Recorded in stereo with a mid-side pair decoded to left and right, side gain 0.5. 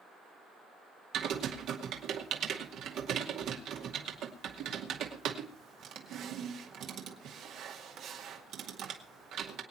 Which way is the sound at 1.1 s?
65° right.